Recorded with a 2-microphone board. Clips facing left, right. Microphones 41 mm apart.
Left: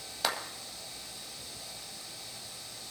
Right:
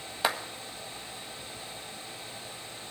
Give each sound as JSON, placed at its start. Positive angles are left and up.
{"t": 0.2, "sound": "a clap", "side_deg": -20, "distance_m": 1.6}